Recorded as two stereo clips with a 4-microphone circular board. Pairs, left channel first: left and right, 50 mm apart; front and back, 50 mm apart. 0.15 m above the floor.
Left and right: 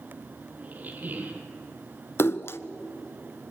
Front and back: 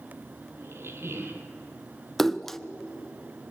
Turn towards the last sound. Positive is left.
turn(degrees=85)